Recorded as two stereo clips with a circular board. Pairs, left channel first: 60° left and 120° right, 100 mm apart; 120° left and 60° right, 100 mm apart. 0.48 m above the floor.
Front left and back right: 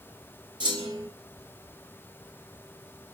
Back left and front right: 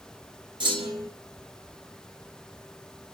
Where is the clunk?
85° right, 3.5 m.